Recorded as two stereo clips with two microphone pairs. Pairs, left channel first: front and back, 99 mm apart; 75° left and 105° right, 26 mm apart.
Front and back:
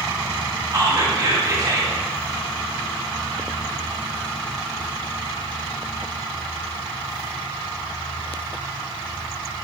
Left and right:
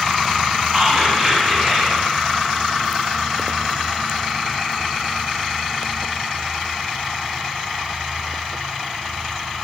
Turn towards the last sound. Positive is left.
turn(degrees=180)